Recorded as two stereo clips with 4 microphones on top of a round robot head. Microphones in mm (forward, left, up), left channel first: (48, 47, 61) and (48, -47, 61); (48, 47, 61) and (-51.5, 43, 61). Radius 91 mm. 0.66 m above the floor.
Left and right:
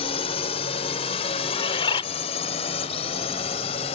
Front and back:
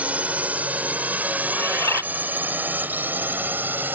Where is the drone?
105° left; by 4.0 s 110° left.